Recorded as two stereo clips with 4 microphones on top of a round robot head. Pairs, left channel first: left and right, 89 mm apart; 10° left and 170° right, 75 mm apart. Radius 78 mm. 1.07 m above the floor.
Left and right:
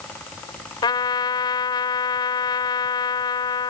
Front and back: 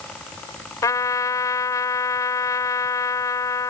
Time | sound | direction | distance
0.8 | a trumpet | 50° left | ?